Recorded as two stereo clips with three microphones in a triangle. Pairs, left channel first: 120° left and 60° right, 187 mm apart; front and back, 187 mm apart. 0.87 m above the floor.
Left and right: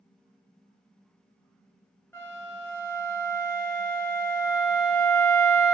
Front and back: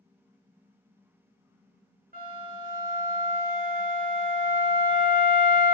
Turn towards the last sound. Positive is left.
turn(degrees=-165)